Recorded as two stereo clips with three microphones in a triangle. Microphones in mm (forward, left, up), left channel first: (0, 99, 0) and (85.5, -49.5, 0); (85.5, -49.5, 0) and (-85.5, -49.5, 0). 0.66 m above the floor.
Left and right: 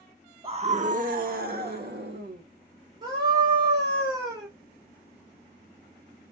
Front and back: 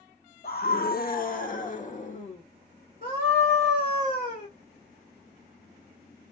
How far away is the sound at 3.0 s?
About 1.7 m.